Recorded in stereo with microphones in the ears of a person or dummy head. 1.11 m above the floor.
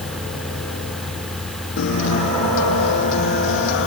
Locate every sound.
0.0 s a fan: centre (ahead or behind), 2.5 m
1.8 s a guitar: 70° left (ahead or behind), 1.8 m